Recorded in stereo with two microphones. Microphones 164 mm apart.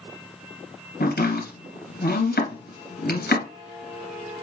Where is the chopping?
75° left (ahead or behind), 2.5 m.